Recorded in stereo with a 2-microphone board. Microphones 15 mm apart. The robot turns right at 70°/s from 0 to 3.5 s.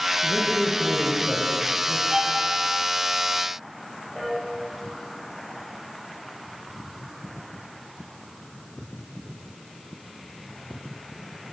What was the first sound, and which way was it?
A man speaking, 150° left.